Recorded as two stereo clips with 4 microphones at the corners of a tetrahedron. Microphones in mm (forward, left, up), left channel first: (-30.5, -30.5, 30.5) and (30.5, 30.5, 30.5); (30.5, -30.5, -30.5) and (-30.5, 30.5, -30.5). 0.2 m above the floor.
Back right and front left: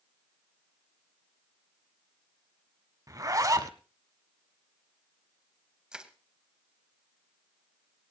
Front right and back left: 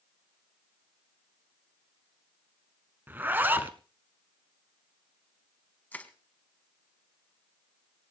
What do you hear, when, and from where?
3.1 s a zipper: 75° left, 1.0 m
5.9 s crushing: 20° right, 1.3 m